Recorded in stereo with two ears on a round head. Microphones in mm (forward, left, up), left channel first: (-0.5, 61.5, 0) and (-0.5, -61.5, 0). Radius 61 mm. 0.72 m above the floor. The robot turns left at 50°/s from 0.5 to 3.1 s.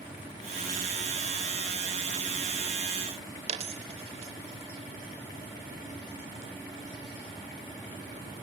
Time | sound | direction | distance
3.5 | a dropped coin | 45° right (ahead or behind) | 0.9 m